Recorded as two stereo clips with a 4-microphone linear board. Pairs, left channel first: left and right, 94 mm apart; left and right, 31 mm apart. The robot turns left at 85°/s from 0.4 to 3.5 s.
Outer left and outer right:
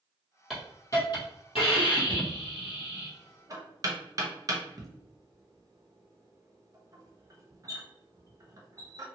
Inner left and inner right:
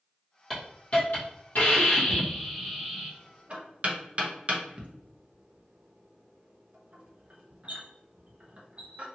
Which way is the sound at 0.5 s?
Straight behind.